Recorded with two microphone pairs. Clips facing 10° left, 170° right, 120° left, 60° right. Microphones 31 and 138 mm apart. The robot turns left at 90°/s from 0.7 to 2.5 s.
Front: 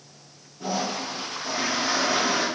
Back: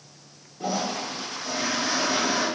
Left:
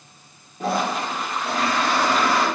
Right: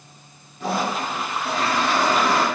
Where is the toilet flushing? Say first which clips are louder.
Even, left 1 dB; 155° left, 1.5 m; by 2.5 s 5° right, 1.5 m.